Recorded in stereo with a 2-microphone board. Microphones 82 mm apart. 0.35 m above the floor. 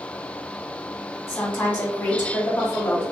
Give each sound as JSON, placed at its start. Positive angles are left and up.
{"t": 1.3, "sound": "a woman speaking", "side_deg": 20, "distance_m": 1.3}